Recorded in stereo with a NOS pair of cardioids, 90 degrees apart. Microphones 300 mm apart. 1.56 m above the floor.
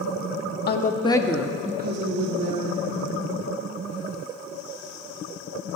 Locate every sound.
0.7 s a woman speaking: 35° left, 1.0 m; by 3.1 s 70° right, 1.6 m